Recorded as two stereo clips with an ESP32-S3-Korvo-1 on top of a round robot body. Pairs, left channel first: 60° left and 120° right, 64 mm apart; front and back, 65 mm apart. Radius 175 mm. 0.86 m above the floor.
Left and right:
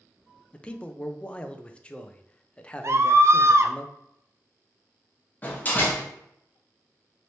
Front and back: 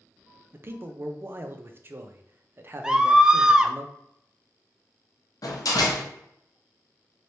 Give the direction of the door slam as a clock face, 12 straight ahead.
12 o'clock.